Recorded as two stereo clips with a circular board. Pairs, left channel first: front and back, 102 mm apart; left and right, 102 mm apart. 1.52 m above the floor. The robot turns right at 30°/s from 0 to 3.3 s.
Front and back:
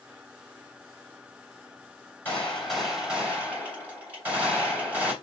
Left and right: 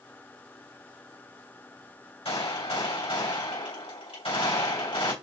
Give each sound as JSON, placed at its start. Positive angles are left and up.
{"t": 2.2, "sound": "a gunshot", "azimuth_deg": 75, "distance_m": 2.5}